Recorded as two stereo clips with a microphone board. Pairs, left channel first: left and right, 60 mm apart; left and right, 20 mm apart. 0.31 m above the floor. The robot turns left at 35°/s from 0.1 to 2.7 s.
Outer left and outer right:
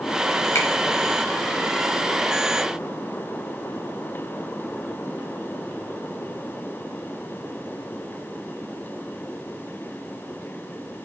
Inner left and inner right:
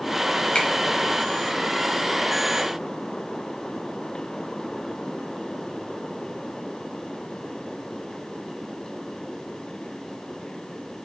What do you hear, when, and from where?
0.6 s a finger snap: 50° left (ahead or behind), 1.2 m; by 0.7 s 55° left (ahead or behind), 1.2 m